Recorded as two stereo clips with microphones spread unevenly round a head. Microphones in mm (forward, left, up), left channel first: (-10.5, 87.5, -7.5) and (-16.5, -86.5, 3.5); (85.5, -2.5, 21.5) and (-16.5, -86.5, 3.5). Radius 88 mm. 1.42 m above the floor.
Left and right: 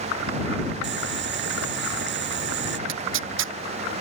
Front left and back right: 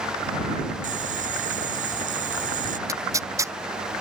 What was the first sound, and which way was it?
Boiling, 115° right.